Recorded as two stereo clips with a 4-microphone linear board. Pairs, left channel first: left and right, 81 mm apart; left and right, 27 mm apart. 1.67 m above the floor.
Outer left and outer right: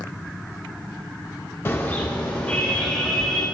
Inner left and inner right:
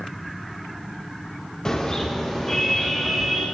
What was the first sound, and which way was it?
A car horn, 30° left (ahead or behind).